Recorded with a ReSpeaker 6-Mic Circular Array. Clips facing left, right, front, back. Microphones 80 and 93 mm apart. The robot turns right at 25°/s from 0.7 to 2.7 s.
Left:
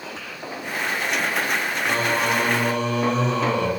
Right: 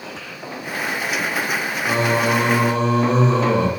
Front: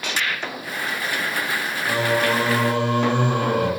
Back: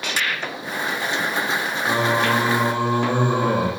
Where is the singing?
130° right, 0.7 m; by 3.7 s 110° right, 0.7 m.